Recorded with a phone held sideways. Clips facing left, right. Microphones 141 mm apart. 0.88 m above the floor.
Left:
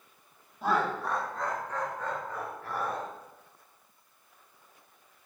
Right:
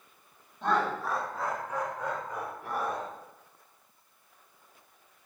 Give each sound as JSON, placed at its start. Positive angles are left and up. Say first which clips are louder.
{"t": 0.6, "sound": "laughter", "louder": "even", "side_deg": 5, "distance_m": 1.7}